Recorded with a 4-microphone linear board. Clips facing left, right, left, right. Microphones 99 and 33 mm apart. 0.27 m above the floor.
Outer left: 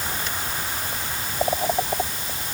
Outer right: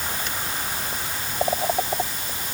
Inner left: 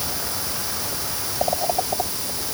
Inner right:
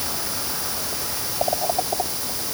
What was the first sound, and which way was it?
Only background noise.